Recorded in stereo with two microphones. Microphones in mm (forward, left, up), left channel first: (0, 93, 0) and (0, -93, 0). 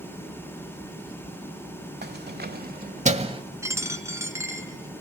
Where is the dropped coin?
15° right (ahead or behind), 1.4 m.